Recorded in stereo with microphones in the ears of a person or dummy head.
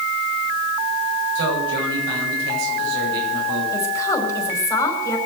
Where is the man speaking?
80° right, 9 m.